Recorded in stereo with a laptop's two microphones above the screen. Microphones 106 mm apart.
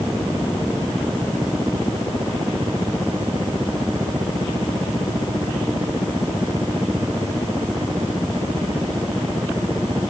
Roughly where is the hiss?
I don't hear a hiss.